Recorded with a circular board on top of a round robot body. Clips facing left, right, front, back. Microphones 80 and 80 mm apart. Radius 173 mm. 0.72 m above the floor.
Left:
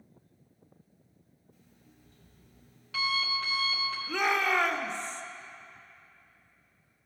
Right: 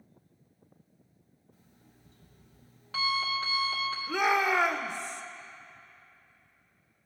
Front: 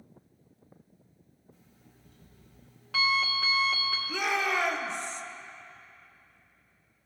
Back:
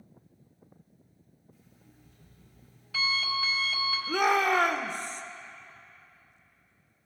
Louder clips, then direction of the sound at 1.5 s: Left 1 dB, back 1 dB; 35° right.